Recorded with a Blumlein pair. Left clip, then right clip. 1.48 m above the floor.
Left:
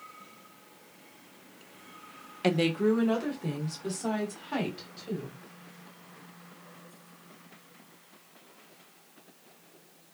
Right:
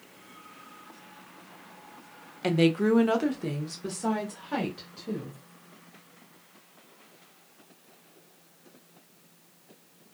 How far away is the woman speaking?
About 0.7 m.